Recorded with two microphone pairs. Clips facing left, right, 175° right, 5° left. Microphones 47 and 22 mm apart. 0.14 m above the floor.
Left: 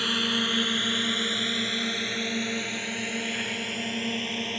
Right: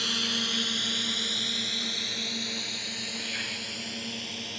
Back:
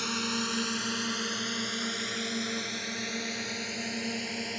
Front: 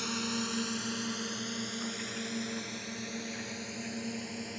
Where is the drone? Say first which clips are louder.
Left 4 dB, back 3 dB; 135° left; by 4.6 s 140° left.